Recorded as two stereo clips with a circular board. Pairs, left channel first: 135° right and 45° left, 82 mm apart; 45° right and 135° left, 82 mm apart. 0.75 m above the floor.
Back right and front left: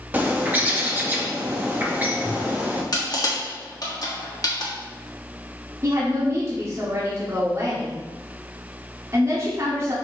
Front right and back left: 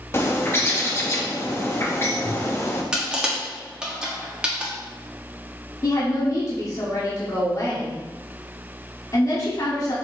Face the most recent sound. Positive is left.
turn(degrees=-5)